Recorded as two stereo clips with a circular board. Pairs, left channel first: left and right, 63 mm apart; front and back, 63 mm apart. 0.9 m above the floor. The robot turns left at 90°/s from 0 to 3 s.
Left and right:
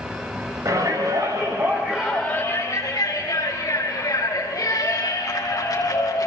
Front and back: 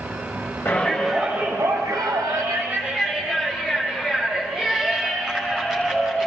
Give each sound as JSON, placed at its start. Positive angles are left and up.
{"t": 0.7, "sound": "a shout", "azimuth_deg": -50, "distance_m": 5.0}